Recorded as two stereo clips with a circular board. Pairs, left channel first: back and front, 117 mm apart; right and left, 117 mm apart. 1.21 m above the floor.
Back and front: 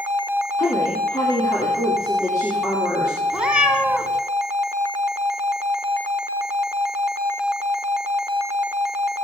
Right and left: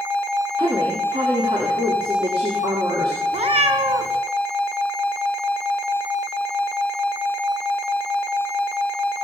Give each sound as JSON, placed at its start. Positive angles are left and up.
{"t": 0.6, "sound": "a woman speaking", "azimuth_deg": 125, "distance_m": 3.0}
{"t": 3.3, "sound": "a cat meowing", "azimuth_deg": 80, "distance_m": 1.9}